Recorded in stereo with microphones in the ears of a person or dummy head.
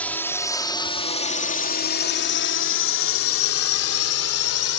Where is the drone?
5° left (ahead or behind); by 4.8 s 80° left.